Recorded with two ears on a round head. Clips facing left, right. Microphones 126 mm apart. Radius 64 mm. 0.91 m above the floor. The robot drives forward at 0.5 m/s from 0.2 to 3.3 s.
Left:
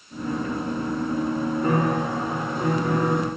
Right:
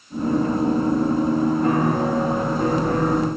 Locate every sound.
1.6 s a piano: centre (ahead or behind), 7.5 m